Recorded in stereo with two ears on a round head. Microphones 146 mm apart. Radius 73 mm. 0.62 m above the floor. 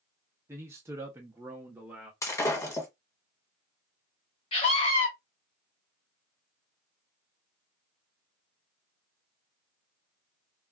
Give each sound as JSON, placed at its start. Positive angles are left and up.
{"t": 0.5, "sound": "a man speaking", "side_deg": -15, "distance_m": 0.7}
{"t": 2.2, "sound": "breaking glass", "side_deg": 20, "distance_m": 1.0}
{"t": 4.5, "sound": "a scream", "side_deg": 35, "distance_m": 1.5}